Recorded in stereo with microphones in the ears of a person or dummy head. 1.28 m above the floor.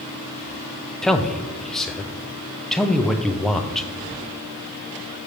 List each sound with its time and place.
1.0 s a man speaking: 5° left (ahead or behind), 0.6 m